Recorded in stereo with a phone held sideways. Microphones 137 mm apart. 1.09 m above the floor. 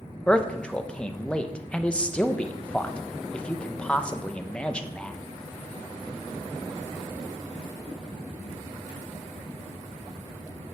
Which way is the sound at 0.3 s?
10° left (ahead or behind).